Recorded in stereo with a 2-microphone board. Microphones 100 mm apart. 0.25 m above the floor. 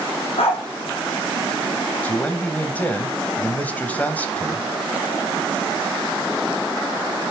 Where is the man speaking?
15° left (ahead or behind), 1.2 m.